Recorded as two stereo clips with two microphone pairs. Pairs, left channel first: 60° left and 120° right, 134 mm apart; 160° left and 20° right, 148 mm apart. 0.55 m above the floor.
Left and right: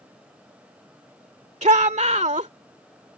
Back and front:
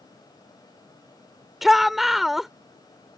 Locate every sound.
1.6 s a shout: 110° right